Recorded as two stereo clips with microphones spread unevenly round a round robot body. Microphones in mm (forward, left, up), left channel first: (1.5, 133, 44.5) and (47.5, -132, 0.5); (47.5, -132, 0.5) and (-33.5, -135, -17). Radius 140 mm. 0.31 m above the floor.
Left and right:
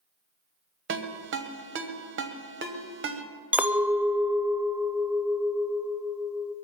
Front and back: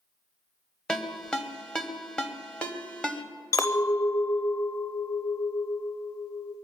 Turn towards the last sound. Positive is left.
turn(degrees=-20)